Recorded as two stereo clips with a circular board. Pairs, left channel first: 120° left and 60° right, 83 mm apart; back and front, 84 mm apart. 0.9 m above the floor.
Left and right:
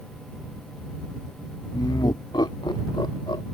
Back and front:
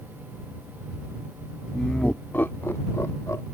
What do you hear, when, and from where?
1.7 s laughter: 95° left; by 3.4 s 130° left